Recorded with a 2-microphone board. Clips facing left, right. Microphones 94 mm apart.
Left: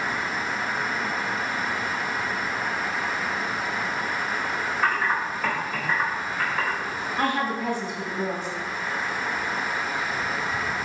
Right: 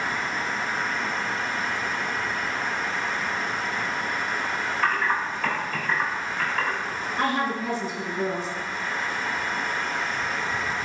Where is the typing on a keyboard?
10° left (ahead or behind), 1.4 m.